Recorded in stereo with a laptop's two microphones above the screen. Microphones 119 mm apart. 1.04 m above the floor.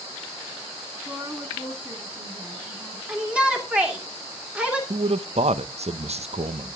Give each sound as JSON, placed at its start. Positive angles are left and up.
{"t": 1.1, "sound": "a woman speaking", "side_deg": -15, "distance_m": 10.0}
{"t": 3.1, "sound": "a shout", "side_deg": -10, "distance_m": 2.5}
{"t": 4.9, "sound": "a man speaking", "side_deg": -60, "distance_m": 0.8}